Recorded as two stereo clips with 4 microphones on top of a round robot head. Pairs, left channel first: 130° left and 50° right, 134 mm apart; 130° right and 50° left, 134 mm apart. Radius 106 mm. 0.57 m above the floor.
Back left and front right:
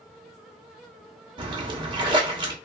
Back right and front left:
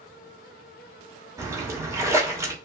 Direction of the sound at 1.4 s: 10° right.